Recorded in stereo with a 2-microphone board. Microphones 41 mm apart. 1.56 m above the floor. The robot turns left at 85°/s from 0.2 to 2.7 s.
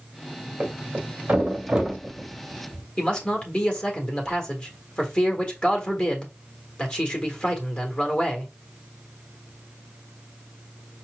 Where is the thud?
40° right (ahead or behind), 1.8 m; by 2.8 s 40° left (ahead or behind), 1.8 m.